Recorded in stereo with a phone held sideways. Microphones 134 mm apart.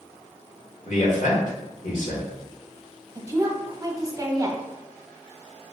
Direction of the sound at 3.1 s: 25° right (ahead or behind).